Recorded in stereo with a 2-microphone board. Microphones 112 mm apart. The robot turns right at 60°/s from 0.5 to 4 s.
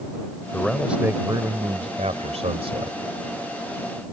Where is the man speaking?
165° left; by 3.0 s 45° right.